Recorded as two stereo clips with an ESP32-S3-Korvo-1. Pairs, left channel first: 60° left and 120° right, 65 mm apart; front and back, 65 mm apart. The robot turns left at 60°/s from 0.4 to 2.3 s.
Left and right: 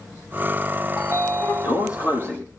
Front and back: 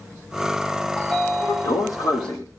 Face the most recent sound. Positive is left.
turn(degrees=0)